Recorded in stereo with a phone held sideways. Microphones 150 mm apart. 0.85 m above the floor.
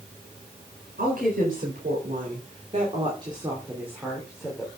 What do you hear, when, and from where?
1.0 s a woman speaking: 75° right (ahead or behind), 4 m; by 4.7 s 5° left (ahead or behind), 3 m